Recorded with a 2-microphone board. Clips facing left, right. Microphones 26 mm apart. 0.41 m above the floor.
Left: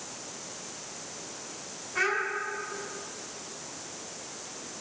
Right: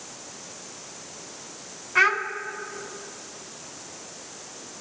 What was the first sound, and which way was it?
A child speaking, 50° right (ahead or behind).